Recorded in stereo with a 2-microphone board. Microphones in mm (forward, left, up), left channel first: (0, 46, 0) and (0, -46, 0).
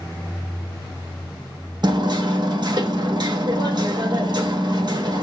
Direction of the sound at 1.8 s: 50° right (ahead or behind).